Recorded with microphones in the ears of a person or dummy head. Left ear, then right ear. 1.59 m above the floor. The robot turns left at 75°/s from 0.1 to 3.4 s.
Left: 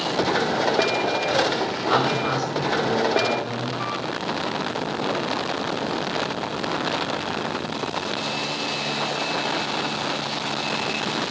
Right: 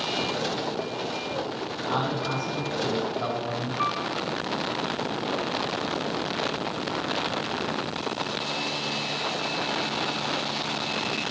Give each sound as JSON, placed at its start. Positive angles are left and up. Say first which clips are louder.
{"t": 1.9, "sound": "a man speaking", "louder": "left 6 dB", "azimuth_deg": 70, "distance_m": 7.5}
{"t": 3.8, "sound": "a piano", "louder": "right 5 dB", "side_deg": -50, "distance_m": 5.5}